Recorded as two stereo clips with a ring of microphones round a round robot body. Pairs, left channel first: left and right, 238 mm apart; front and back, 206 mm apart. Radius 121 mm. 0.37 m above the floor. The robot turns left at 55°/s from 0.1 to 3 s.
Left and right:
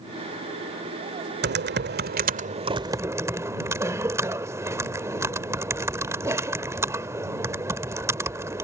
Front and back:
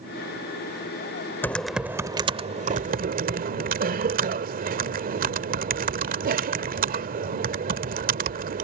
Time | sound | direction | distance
1.4 | typing on a keyboard | 75° right | ?